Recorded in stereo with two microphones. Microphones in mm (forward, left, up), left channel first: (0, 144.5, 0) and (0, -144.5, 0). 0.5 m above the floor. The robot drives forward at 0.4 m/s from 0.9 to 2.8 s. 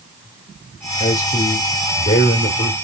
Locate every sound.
1.0 s a man speaking: 30° left (ahead or behind), 1.3 m; by 2.7 s 45° left (ahead or behind), 0.9 m